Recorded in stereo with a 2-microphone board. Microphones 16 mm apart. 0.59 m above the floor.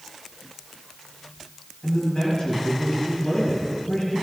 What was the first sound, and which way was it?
A man speaking, 55° left (ahead or behind).